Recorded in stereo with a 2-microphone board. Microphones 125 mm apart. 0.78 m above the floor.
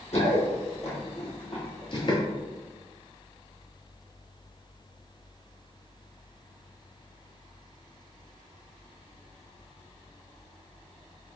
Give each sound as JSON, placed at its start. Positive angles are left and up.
{"t": 0.1, "sound": "running footsteps", "side_deg": 65, "distance_m": 1.9}